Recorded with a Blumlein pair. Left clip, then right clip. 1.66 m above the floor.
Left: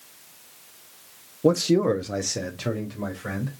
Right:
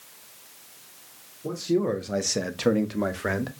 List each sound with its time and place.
1.4 s a man speaking: 40° left, 0.6 m; by 3.5 s 35° right, 1.2 m